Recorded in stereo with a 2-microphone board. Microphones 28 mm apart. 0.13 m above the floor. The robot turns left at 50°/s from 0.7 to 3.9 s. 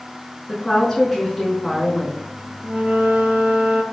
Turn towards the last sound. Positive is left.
turn(degrees=-135)